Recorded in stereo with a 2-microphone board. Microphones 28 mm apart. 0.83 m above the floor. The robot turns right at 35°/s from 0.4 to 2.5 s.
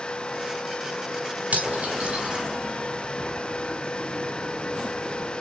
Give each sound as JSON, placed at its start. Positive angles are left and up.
{"t": 1.5, "sound": "cutlery clinking", "side_deg": -75, "distance_m": 5.0}